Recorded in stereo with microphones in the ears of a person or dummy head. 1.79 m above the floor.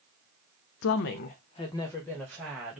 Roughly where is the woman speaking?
Left.